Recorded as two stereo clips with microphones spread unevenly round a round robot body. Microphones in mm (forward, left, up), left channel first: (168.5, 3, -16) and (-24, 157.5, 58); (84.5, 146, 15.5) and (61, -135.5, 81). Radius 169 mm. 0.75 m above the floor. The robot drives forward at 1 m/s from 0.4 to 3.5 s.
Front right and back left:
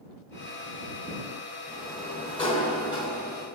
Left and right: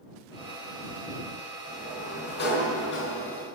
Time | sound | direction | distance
1.7 | a sliding door | 30° left | 5 m